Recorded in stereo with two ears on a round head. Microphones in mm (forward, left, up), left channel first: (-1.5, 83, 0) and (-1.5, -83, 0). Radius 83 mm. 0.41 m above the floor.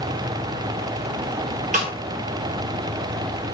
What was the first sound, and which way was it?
A snare drum, 40° right (ahead or behind).